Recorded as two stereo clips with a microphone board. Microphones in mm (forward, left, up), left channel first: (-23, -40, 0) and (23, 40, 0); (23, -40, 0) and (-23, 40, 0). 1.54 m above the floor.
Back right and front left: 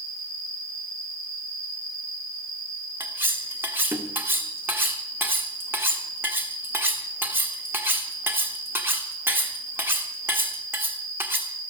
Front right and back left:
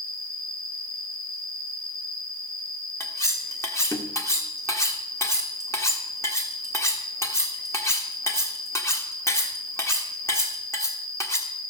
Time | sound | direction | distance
0.0 | an insect | 140° right | 3.5 m
3.0 | cutlery clinking | 5° right | 1.5 m